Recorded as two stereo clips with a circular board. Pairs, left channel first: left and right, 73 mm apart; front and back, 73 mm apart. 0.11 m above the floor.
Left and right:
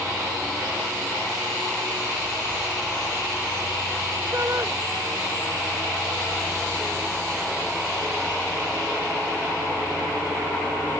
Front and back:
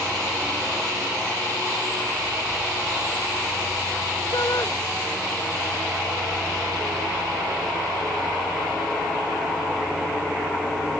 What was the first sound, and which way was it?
A shout, 35° right.